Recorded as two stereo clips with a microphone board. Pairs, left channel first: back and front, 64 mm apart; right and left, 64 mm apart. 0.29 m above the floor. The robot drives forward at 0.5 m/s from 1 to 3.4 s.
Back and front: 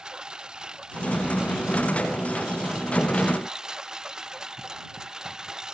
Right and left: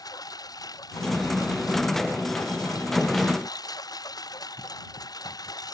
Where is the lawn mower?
80° right.